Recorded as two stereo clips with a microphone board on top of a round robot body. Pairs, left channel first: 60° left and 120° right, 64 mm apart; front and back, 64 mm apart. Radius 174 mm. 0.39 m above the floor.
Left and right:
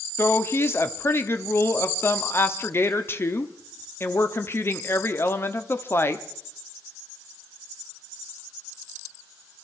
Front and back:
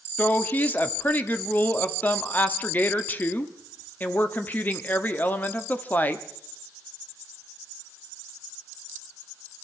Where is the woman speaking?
45° left, 1.3 m.